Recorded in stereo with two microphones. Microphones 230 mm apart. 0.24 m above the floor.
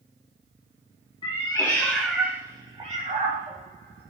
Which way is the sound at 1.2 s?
25° left (ahead or behind).